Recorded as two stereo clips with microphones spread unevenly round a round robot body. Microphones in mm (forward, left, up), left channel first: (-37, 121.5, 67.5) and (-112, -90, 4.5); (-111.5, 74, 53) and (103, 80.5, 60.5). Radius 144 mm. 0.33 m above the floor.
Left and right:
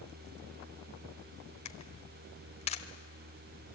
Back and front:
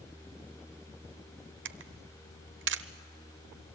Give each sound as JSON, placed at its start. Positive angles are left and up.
{"t": 1.6, "sound": "a camera shutter", "azimuth_deg": 0, "distance_m": 0.8}